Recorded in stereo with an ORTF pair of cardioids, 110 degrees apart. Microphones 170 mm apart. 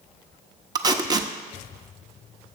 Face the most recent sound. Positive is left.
turn(degrees=-25)